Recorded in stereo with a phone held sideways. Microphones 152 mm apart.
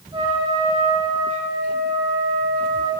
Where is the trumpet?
40° right (ahead or behind), 2.5 m.